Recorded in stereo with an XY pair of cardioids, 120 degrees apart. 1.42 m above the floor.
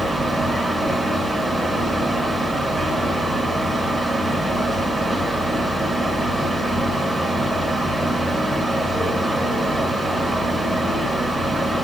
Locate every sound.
0.0 s a fan: straight ahead, 4 m